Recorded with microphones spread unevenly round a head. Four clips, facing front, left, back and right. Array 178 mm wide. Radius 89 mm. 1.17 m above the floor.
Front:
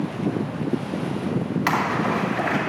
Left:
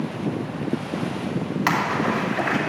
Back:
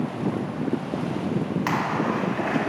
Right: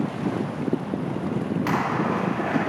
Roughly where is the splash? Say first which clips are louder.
Left 3 dB, front 3 dB; left.